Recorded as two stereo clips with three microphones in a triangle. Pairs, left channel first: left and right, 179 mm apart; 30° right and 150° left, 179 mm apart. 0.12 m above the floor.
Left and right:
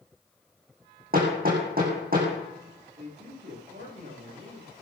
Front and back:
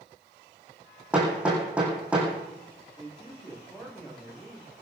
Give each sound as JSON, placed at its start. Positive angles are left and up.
{"t": 1.1, "sound": "hammering", "azimuth_deg": -125, "distance_m": 6.0}
{"t": 3.0, "sound": "a man speaking", "azimuth_deg": -115, "distance_m": 8.0}